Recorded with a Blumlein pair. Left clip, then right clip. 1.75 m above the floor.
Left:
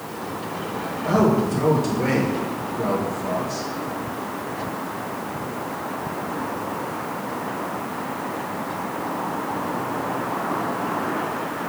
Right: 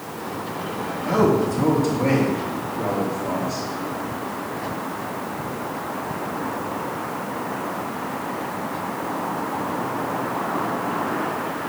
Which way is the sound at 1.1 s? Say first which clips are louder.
Right 1 dB; 10° left.